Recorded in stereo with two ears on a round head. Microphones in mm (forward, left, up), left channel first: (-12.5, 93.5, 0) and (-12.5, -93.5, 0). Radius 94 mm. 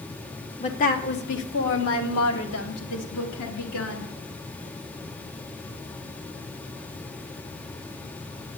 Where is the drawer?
I don't hear a drawer.